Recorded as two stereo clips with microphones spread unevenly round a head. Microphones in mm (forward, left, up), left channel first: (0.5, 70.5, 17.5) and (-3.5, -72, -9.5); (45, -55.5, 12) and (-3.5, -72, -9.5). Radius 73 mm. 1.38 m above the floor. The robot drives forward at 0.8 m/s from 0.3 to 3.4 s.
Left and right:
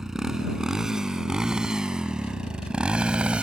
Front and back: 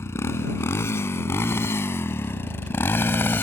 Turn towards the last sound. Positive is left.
turn(degrees=-5)